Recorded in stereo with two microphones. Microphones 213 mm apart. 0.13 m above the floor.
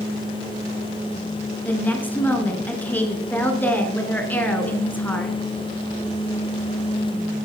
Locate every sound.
1.6 s a woman speaking: 10° left (ahead or behind), 1.6 m